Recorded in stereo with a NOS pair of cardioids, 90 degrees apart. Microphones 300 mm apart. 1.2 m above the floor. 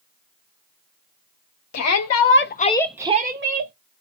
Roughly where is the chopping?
No chopping in this recording.